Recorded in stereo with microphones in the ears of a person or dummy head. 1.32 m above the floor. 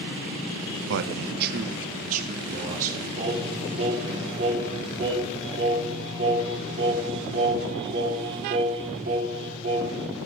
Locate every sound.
0.9 s a man speaking: 65° right (ahead or behind), 0.6 m; by 3.1 s 40° right (ahead or behind), 2.5 m
3.2 s singing: 35° right (ahead or behind), 6 m